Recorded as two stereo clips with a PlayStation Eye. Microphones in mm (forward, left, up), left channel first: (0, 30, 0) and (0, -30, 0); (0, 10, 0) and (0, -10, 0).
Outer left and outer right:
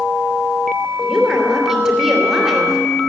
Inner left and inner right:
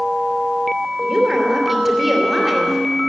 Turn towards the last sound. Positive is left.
turn(degrees=-10)  # may be behind; listen again after turning